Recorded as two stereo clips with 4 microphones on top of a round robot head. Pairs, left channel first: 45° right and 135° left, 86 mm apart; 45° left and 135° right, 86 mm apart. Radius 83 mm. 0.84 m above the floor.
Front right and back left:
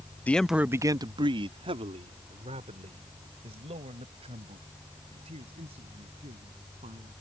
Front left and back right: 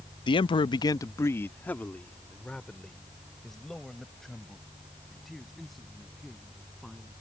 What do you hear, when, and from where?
0.3 s a man speaking: 25° left; by 7.1 s 135° left